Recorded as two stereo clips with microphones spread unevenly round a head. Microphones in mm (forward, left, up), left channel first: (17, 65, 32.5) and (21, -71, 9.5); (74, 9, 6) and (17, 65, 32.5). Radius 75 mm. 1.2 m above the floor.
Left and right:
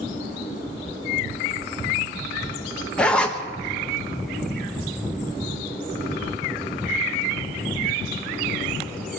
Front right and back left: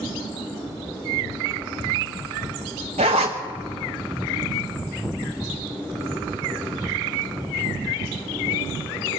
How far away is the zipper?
About 1.2 m.